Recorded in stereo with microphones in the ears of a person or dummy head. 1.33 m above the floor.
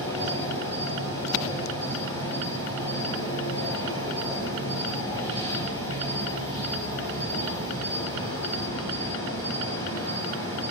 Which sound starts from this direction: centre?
An insect, at 0.0 s.